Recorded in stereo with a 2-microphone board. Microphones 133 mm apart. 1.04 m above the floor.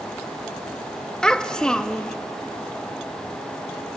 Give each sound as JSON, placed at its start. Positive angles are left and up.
{"t": 1.2, "sound": "a child speaking", "side_deg": 5, "distance_m": 0.9}